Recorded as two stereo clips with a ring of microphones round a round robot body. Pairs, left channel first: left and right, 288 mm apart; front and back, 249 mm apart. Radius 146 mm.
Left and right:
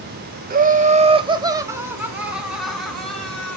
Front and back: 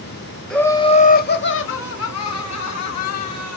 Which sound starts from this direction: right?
Laughter, at 0.5 s.